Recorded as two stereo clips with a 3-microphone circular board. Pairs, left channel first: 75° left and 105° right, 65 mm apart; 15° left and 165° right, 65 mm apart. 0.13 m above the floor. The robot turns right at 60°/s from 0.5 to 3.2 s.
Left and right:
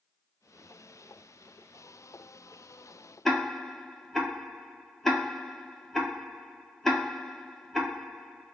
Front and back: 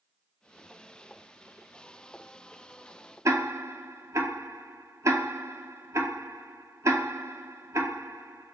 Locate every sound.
3.2 s ticking: 160° left, 0.6 m